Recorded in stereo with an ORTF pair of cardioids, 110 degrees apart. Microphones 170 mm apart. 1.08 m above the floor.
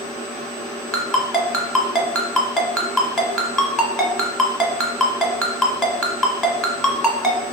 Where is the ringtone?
Straight ahead, 1.1 m.